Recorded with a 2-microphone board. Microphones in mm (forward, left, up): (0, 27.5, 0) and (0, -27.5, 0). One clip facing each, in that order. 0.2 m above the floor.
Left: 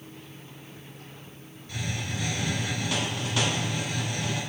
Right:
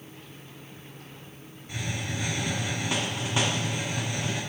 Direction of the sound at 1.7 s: 20° right (ahead or behind).